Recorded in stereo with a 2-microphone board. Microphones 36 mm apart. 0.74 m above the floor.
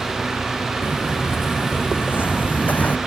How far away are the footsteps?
About 3 m.